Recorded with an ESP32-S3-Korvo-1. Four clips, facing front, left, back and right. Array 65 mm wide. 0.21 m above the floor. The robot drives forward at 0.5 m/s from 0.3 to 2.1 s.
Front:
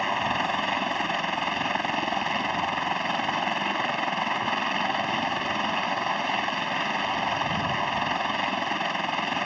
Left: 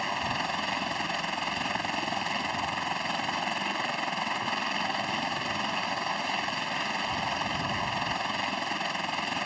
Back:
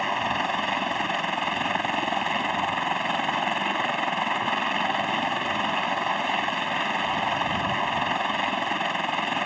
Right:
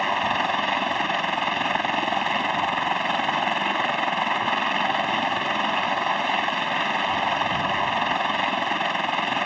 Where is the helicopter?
100° right; by 9.4 s 105° right.